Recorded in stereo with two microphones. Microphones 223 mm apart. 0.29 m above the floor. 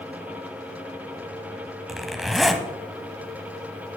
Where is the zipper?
Centre (ahead or behind), 1.3 m.